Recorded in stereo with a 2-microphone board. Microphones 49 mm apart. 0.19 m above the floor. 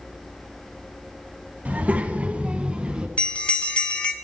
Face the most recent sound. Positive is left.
turn(degrees=30)  # may be behind; listen again after turning